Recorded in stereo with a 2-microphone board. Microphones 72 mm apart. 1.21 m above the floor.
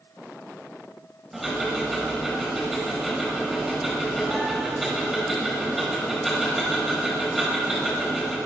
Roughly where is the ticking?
Centre.